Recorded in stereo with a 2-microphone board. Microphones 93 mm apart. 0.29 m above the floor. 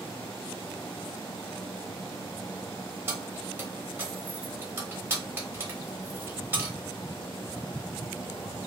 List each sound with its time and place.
3.1 s keys jangling: 25° right (ahead or behind), 0.9 m